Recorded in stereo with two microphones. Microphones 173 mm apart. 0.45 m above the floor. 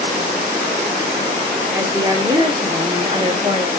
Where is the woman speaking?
15° right (ahead or behind), 1.4 m; by 3.7 s 35° right (ahead or behind), 1.5 m.